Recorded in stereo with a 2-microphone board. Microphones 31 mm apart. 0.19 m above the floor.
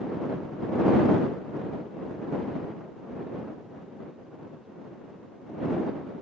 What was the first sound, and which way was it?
Only background noise.